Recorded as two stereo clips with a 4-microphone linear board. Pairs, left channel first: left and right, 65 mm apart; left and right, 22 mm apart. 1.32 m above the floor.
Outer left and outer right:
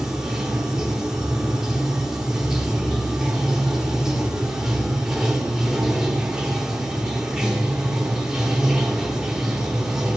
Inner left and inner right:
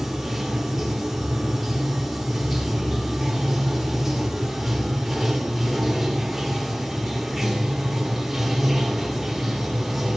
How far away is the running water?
About 2 m.